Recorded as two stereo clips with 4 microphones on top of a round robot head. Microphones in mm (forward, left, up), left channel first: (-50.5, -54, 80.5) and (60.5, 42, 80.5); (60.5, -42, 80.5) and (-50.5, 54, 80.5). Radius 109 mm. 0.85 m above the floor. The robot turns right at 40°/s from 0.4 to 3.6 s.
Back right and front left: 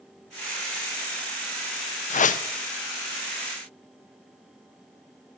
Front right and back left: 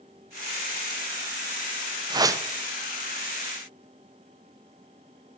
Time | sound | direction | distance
2.1 | a whoosh | 165° right | 0.7 m